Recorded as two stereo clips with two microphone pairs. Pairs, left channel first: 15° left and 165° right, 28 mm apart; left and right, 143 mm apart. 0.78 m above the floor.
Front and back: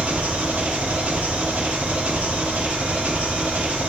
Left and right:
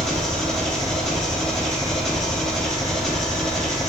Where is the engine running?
175° left, 1.3 m.